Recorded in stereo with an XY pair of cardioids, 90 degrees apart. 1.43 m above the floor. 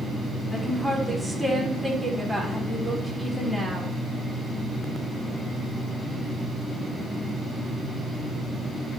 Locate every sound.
0.5 s a woman speaking: 5° right, 5 m